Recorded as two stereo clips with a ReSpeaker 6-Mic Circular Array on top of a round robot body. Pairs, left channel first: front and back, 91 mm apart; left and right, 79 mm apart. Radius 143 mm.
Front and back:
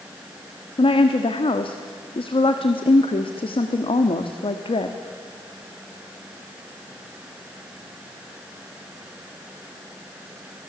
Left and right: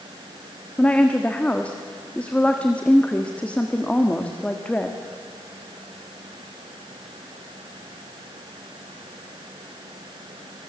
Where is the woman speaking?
15° left, 1.4 m.